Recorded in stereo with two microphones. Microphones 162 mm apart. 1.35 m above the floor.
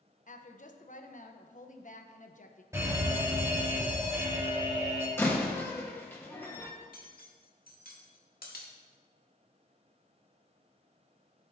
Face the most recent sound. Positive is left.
turn(degrees=65)  # may be behind; listen again after turning